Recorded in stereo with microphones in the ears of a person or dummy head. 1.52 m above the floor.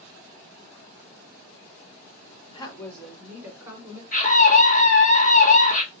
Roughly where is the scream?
Left.